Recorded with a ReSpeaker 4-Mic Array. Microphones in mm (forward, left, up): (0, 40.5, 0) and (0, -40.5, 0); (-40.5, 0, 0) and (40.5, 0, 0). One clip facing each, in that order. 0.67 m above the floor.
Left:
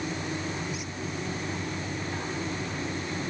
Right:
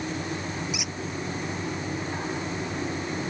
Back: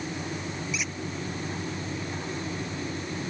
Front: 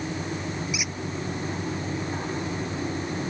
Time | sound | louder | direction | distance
0.7 | a squeak | right 2 dB, front 1 dB | 80° right | ?